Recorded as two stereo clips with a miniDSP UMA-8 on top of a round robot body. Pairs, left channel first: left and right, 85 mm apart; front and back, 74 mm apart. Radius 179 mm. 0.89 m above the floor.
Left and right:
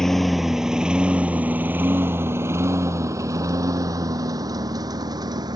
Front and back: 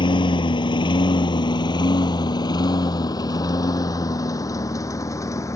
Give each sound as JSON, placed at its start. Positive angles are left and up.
{"t": 0.0, "sound": "a lawn mower", "azimuth_deg": 5}